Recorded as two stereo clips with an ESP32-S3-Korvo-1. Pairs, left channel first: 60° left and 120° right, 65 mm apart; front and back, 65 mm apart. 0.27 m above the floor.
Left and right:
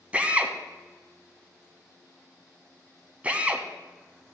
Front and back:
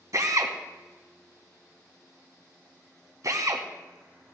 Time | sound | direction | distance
0.1 | a drill | 175° left | 1.4 m